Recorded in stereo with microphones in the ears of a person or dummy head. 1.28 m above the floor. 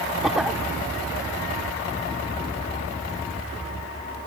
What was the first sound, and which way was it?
A cough, 5° right (ahead or behind).